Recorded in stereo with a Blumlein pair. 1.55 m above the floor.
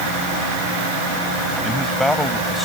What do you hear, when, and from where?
1.6 s a man speaking: 5° left; by 2.6 s 10° left